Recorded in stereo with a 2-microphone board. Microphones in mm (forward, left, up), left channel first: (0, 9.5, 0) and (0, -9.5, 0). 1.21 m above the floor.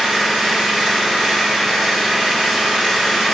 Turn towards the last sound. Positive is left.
turn(degrees=-80)